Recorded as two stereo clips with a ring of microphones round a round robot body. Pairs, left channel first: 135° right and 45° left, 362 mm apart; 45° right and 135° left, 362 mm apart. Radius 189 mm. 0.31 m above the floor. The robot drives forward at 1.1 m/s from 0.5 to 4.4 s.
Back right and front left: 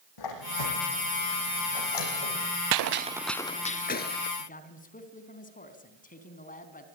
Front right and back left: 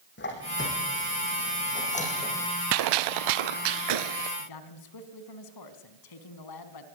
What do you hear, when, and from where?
0.2 s a squeak: 105° right, 8.5 m; by 2.5 s 120° right, 9 m
2.7 s a gunshot: 80° left, 0.5 m; by 4.3 s 165° left, 1.7 m
4.4 s a man speaking: 65° right, 4 m